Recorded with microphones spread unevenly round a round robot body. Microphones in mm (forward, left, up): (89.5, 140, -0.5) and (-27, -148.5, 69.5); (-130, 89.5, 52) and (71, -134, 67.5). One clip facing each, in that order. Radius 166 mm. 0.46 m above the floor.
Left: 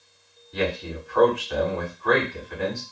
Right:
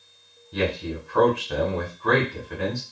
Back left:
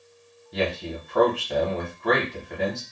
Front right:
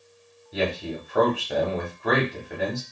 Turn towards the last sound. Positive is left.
turn(degrees=-130)